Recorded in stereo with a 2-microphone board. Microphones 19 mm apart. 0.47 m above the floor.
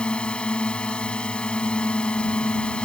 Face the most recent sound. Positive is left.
turn(degrees=70)  # may be behind; listen again after turning